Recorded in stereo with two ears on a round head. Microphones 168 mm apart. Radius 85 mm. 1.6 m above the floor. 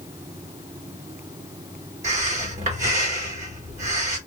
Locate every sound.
2.0 s breathing: 40° right (ahead or behind), 1.5 m